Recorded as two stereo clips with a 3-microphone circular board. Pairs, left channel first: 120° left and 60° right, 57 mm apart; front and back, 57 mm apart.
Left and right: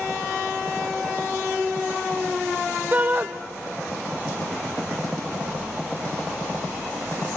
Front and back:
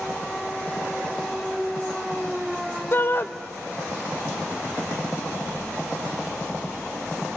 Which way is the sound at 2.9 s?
20° right.